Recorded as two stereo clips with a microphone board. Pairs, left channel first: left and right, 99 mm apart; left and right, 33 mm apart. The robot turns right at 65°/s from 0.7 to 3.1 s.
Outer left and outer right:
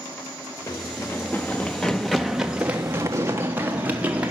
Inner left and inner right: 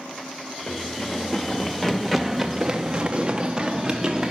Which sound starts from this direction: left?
Running footsteps, at 0.7 s.